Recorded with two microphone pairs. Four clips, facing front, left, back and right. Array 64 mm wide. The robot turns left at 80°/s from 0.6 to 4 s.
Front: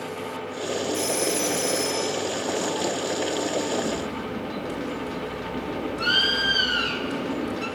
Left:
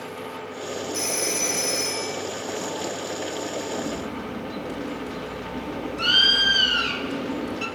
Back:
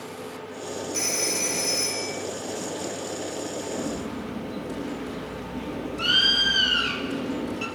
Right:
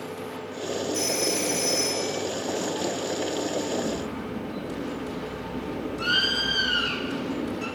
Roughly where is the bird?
Behind left.